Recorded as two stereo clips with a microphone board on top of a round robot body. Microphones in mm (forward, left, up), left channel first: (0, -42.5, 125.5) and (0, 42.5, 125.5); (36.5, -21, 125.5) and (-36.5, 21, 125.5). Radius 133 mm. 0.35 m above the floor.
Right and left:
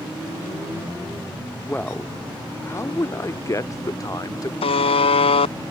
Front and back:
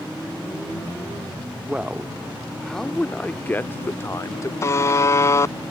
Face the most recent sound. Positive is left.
turn(degrees=-90)